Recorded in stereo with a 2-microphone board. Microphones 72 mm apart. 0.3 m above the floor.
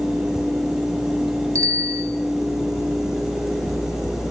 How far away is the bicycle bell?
About 4 m.